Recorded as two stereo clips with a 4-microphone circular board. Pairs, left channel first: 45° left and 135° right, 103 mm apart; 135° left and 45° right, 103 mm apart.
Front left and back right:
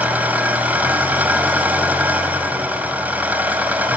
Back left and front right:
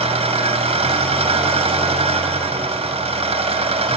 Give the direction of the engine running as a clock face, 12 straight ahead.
2 o'clock.